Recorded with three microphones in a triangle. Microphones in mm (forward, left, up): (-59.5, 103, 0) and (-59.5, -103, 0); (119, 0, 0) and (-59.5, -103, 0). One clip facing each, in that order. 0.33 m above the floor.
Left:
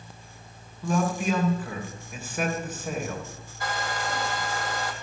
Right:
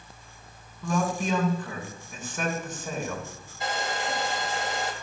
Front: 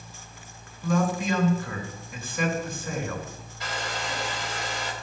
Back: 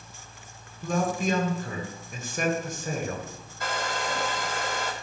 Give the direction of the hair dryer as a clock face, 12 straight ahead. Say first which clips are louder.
Right 1 dB, back 3 dB; 5 o'clock.